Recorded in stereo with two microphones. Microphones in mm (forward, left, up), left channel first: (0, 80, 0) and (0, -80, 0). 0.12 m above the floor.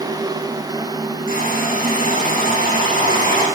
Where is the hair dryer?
65° left (ahead or behind), 7 m.